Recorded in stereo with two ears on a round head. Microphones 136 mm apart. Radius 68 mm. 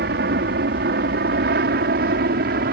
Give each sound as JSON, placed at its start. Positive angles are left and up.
{"t": 0.0, "sound": "an aircraft", "side_deg": -70}